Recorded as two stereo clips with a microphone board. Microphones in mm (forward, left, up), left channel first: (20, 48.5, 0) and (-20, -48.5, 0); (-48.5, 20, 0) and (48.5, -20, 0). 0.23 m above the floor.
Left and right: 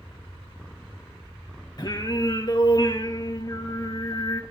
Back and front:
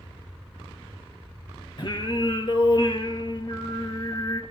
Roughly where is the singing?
Behind left.